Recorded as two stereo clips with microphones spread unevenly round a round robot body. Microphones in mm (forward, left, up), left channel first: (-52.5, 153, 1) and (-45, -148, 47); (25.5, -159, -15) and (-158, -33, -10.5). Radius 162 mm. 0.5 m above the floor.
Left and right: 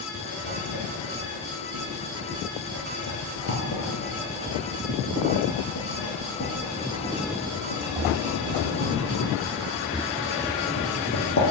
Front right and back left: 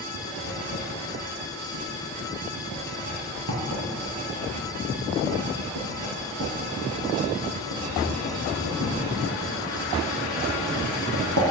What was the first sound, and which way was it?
Writing, 140° left.